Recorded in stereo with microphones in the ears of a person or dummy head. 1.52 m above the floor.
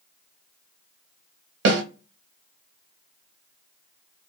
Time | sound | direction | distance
1.6 | a snare drum | 70° right (ahead or behind) | 0.8 m